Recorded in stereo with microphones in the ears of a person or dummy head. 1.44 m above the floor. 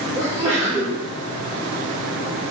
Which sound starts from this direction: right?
A sneeze, at 0.1 s.